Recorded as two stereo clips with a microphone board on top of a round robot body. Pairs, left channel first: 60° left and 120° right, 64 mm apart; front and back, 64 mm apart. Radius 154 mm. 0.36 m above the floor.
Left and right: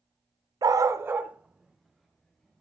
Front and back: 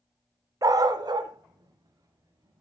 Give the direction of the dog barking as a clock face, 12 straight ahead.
5 o'clock.